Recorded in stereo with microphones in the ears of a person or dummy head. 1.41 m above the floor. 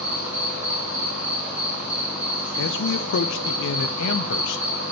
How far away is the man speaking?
About 0.5 m.